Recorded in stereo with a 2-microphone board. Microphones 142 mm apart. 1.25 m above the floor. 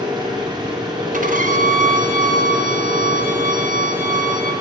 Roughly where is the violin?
Right.